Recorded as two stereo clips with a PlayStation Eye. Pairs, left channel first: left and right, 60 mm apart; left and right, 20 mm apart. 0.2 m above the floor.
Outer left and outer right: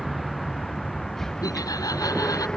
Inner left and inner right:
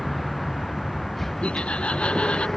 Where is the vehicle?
5° left (ahead or behind); by 2.6 s 15° left (ahead or behind).